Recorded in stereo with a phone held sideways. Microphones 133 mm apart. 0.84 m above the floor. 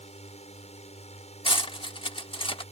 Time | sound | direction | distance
0.0 | a drone | 55° left (ahead or behind) | ?
1.4 | cutlery clinking | 40° left (ahead or behind) | ?